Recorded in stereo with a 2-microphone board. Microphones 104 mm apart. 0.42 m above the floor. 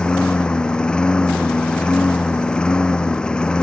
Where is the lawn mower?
10° left (ahead or behind).